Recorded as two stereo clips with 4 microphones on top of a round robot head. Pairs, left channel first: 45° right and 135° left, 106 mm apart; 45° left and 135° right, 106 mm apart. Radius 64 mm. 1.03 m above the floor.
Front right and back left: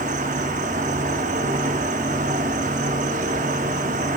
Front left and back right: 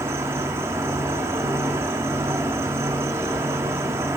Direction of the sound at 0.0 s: 155° left.